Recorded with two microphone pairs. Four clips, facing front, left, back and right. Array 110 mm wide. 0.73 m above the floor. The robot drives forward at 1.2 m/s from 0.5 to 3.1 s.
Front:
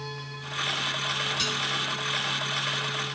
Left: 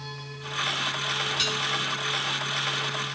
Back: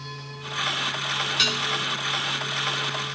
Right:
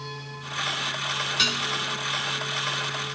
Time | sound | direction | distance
1.4 | dishes clattering | 125° right | ?